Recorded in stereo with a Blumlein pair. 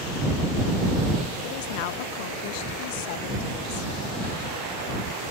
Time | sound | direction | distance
1.4 | a woman speaking | 45° left | ?